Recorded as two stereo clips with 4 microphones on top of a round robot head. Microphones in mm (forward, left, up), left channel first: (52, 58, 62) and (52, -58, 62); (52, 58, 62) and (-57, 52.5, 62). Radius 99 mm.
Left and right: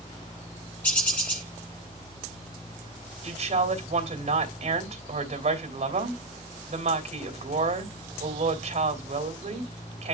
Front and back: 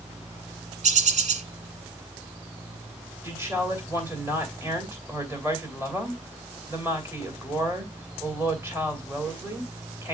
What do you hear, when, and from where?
0.8 s a bird: 170° left, 1.6 m
3.2 s a woman speaking: 105° right, 3 m